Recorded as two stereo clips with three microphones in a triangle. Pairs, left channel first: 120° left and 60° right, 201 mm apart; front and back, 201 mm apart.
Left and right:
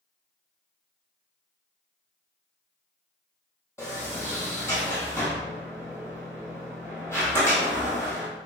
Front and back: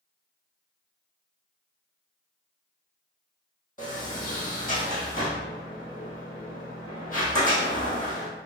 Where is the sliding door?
45° left, 1.6 m.